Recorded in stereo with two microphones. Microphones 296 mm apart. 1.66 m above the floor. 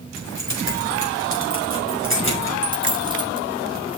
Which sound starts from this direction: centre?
A dropped coin, at 2.6 s.